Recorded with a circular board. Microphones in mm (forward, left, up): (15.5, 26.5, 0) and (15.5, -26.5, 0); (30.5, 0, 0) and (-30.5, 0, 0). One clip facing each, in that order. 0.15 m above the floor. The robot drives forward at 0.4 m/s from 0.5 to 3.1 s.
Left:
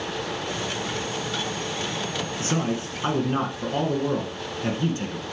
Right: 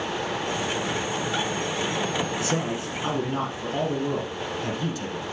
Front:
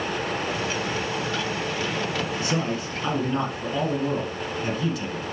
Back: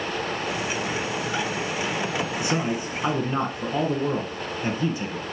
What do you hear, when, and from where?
2.4 s a man speaking: 110° left, 1.3 m; by 5.2 s 125° left, 1.4 m